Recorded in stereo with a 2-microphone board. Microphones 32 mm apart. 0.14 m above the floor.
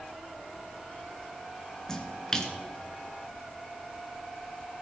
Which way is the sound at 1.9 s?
20° left (ahead or behind).